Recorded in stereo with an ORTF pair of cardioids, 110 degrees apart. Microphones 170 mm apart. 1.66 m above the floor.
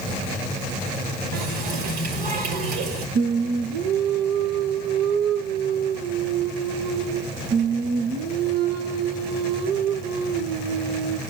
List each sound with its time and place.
1.3 s a running tap: 65° right, 2.5 m
3.1 s singing: 65° right, 1.6 m